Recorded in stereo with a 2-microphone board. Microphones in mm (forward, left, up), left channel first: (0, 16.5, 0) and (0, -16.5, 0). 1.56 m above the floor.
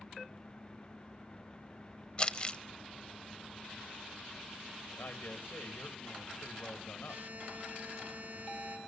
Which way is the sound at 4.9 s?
75° left (ahead or behind).